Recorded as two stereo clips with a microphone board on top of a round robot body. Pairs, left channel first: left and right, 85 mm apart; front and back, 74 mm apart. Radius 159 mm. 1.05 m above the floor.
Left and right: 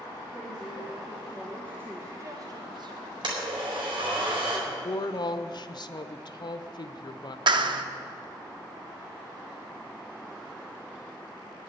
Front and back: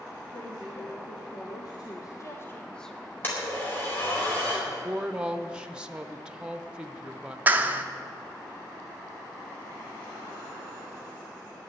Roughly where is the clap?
Behind right.